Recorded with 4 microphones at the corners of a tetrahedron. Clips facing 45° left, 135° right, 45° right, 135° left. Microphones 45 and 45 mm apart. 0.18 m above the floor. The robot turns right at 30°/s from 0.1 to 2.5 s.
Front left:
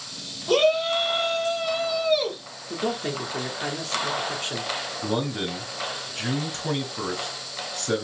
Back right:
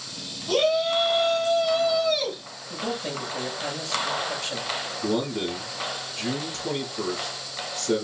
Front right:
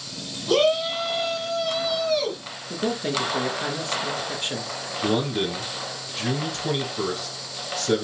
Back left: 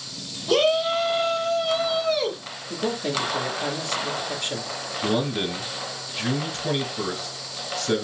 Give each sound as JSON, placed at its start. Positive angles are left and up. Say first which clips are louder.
{"t": 0.5, "sound": "a shout", "louder": "front left 2 dB, even", "azimuth_deg": 35, "distance_m": 1.0}
{"t": 2.7, "sound": "a man speaking", "louder": "front left 3 dB, even", "azimuth_deg": 20, "distance_m": 2.0}
{"t": 5.0, "sound": "a man speaking", "louder": "back right 1 dB, front right 1 dB", "azimuth_deg": 50, "distance_m": 2.0}